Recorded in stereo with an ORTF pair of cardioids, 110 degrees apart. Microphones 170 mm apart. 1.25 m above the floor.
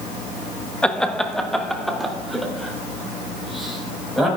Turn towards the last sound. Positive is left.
turn(degrees=0)